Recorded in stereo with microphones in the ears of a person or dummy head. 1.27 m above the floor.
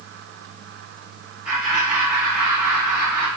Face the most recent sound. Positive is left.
turn(degrees=-25)  # may be behind; listen again after turning